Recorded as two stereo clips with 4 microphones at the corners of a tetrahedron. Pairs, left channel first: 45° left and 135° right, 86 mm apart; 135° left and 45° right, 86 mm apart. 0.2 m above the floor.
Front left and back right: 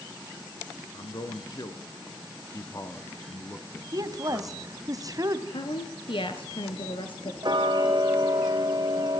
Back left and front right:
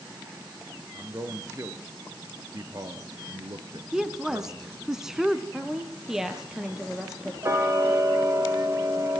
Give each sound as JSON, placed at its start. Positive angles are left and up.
{"t": 0.9, "sound": "a man speaking", "azimuth_deg": 15, "distance_m": 3.0}
{"t": 3.9, "sound": "a woman speaking", "azimuth_deg": -125, "distance_m": 1.9}
{"t": 5.5, "sound": "a woman speaking", "azimuth_deg": 40, "distance_m": 3.5}
{"t": 7.4, "sound": "ticking", "azimuth_deg": -100, "distance_m": 4.0}